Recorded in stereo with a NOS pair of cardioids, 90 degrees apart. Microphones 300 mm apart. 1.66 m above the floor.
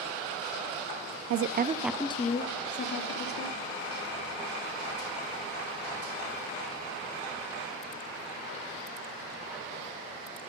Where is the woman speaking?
55° right, 0.6 m; by 3.6 s 50° left, 1.7 m.